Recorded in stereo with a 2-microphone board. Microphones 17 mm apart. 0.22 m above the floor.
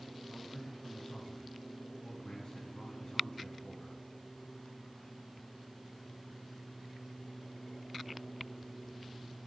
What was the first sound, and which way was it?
A man speaking, 35° left (ahead or behind).